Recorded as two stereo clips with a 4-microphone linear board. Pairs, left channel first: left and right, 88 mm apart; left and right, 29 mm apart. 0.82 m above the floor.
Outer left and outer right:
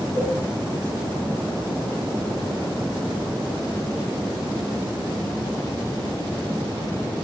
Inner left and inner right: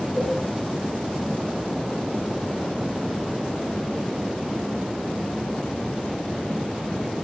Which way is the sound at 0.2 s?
40° right (ahead or behind).